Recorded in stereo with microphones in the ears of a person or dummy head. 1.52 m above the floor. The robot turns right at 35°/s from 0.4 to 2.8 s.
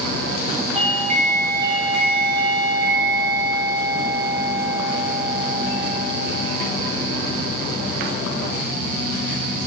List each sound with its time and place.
0.8 s a doorbell: 150° right, 1.3 m; by 6.0 s 80° right, 1.3 m